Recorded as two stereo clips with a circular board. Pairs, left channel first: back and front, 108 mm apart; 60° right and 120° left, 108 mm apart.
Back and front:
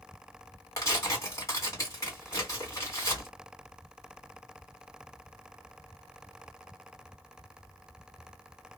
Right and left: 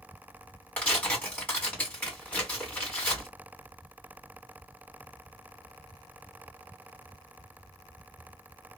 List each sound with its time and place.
0.8 s tearing paper: 130° right, 1.9 m